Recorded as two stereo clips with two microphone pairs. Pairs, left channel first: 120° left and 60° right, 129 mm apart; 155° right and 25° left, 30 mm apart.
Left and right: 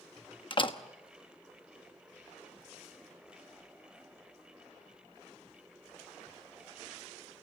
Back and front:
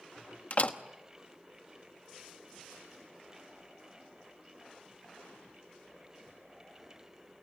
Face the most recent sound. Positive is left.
turn(degrees=165)